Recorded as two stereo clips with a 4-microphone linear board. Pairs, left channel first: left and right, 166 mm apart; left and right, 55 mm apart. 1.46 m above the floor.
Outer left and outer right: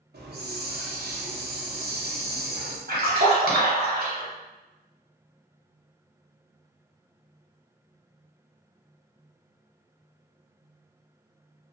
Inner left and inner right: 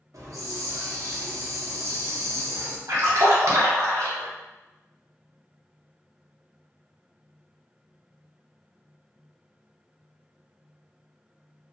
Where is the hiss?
75° right (ahead or behind), 0.5 m.